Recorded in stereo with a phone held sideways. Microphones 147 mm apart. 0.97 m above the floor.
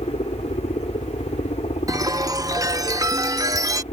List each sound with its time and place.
0.0 s a helicopter: 50° left (ahead or behind)
1.9 s a chime: 25° right (ahead or behind)